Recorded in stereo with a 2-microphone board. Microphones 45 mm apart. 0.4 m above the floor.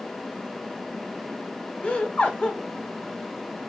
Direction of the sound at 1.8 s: 25° left (ahead or behind).